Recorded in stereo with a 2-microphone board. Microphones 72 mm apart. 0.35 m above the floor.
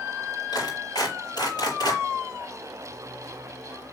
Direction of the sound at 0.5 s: 70° left (ahead or behind).